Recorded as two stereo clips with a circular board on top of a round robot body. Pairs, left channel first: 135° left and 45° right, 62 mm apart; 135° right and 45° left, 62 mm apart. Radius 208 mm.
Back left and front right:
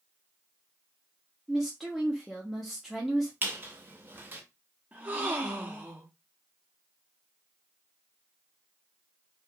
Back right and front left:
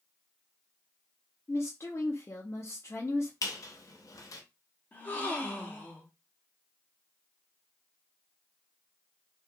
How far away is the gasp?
About 1.2 m.